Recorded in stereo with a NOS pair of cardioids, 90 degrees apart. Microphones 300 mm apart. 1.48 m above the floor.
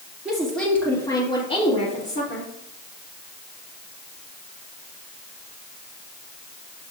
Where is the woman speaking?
5° right, 3 m; by 2.5 s 40° left, 3.5 m.